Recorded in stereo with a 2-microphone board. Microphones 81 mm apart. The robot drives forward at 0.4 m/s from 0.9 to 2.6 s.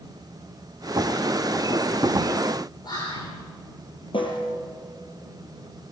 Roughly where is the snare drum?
Left.